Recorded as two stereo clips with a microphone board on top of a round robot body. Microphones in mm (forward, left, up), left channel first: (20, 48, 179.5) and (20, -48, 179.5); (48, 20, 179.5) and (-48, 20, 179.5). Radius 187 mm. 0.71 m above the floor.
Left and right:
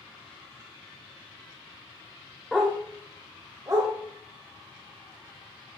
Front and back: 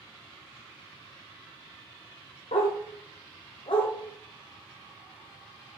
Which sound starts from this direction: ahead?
A dog barking, at 2.5 s.